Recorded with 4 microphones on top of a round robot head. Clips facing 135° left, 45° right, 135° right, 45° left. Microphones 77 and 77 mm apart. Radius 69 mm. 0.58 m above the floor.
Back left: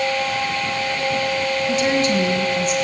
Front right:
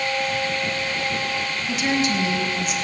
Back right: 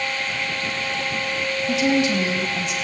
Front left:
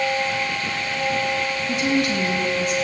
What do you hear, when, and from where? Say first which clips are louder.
1.7 s a woman speaking: back left 3 dB, back right 3 dB; 130° right, 4.5 m